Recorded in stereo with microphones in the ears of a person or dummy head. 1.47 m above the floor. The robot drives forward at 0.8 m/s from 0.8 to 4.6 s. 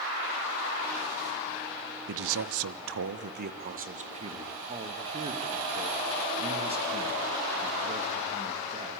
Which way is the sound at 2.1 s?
65° right (ahead or behind).